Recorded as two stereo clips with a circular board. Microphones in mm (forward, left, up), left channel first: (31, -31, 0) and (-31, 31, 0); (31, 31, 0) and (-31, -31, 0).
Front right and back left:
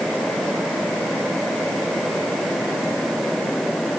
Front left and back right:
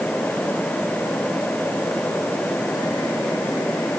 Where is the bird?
I don't hear a bird.